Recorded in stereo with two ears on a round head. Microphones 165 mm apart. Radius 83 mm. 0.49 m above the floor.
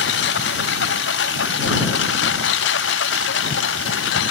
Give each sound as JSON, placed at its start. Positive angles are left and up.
{"t": 0.0, "sound": "a lawn mower", "side_deg": 65}